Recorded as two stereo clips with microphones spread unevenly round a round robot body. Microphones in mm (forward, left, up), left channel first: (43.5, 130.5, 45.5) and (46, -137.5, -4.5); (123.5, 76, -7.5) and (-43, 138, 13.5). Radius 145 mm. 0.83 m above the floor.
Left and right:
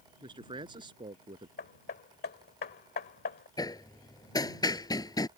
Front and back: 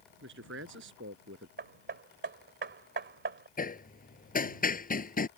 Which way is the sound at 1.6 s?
150° left.